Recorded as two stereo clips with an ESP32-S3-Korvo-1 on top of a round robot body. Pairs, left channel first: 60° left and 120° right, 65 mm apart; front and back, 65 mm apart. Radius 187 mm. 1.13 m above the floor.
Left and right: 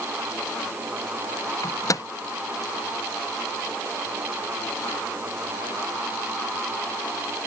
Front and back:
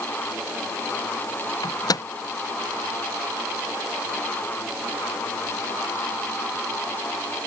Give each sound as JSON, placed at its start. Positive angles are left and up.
{"t": 1.6, "sound": "a microwave", "azimuth_deg": 25}